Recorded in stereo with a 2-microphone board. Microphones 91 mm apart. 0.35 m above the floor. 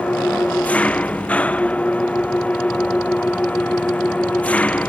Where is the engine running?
15° left (ahead or behind).